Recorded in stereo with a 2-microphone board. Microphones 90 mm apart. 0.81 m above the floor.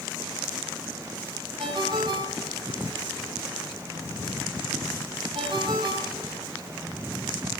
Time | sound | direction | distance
1.6 | a ringtone | 55° right (ahead or behind) | 3.5 m